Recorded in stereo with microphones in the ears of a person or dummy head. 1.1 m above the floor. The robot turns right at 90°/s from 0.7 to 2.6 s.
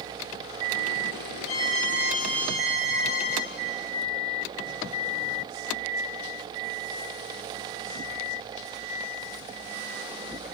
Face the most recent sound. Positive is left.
turn(degrees=135)